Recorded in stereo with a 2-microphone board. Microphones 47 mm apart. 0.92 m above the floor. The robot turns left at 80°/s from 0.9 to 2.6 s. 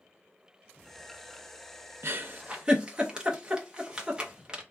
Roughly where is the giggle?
Right.